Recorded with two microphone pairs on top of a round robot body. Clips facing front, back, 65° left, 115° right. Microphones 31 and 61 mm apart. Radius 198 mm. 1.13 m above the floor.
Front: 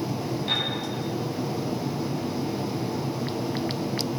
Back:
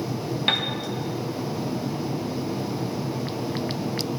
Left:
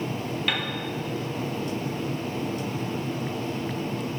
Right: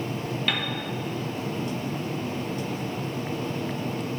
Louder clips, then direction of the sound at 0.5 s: Back 4 dB, even; 155° left.